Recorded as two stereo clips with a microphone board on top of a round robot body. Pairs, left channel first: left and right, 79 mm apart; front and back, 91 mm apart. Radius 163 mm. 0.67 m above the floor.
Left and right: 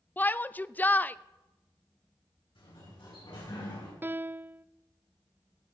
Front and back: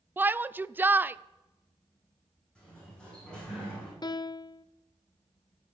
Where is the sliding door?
80° left, 8 m.